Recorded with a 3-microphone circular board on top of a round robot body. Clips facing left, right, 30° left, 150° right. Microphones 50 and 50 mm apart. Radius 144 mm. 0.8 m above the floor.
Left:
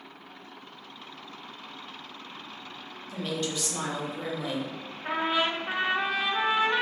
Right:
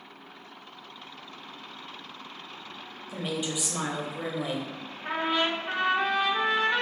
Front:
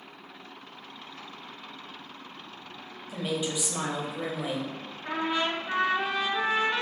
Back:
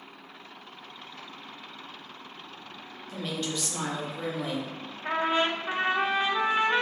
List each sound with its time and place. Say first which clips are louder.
3.1 s a woman speaking: even, front 2 dB; 30° right, 0.9 m
5.0 s a trumpet: even, back 3 dB; 175° left, 0.8 m